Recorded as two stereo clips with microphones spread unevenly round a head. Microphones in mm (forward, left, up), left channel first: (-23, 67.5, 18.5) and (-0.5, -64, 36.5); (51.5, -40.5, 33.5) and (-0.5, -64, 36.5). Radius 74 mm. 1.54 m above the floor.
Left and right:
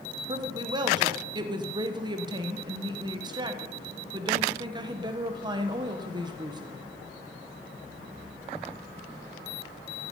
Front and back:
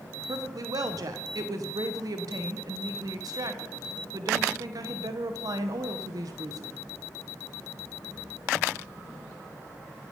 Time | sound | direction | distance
0.3 | a woman speaking | 140° right | 1.1 m